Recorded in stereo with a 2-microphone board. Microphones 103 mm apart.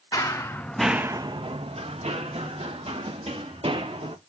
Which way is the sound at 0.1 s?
35° left (ahead or behind).